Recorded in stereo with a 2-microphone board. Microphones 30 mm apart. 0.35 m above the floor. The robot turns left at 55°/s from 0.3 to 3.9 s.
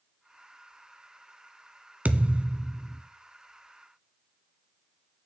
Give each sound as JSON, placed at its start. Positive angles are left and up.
{"t": 2.0, "sound": "a thud", "azimuth_deg": -125, "distance_m": 0.9}